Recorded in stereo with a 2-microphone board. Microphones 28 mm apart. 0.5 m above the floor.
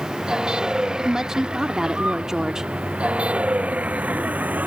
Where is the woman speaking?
15° right (ahead or behind).